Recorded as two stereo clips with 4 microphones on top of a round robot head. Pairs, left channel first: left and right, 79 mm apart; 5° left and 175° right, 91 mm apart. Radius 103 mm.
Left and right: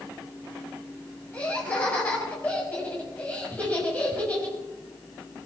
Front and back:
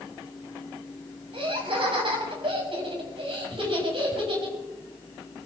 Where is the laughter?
165° left, 5 m.